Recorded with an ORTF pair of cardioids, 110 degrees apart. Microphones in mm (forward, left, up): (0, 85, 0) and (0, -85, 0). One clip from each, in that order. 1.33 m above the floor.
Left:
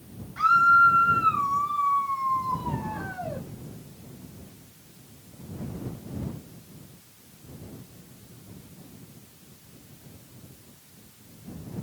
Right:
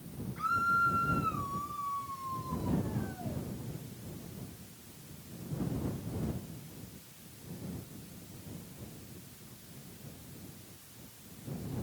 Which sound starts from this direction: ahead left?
A scream, at 0.4 s.